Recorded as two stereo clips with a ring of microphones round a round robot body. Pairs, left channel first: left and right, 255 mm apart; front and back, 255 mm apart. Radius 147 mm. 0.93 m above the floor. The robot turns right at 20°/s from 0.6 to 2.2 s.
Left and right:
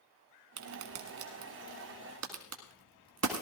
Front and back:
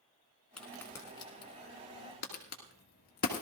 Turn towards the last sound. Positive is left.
turn(degrees=-55)